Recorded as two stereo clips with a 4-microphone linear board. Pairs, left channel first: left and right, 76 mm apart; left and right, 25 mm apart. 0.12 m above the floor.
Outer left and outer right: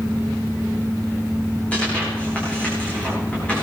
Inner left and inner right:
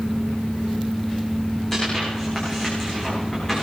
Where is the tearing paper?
15° left (ahead or behind), 8.5 m.